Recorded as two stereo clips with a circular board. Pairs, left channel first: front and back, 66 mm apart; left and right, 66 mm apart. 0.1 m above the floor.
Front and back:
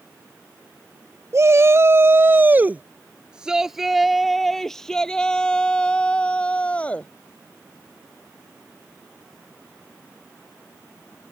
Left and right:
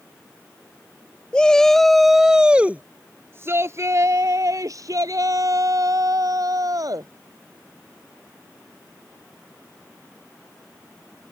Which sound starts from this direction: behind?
A shout, at 1.3 s.